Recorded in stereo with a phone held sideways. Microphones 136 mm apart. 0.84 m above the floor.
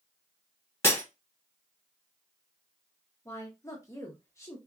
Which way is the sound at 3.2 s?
20° left (ahead or behind).